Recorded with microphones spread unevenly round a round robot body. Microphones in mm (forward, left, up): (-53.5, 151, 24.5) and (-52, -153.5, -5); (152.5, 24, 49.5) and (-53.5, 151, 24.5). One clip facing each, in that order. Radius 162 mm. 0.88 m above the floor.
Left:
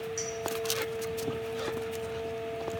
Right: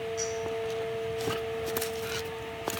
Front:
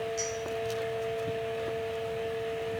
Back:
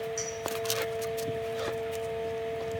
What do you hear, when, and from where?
0.2 s a clink: 125° left, 5 m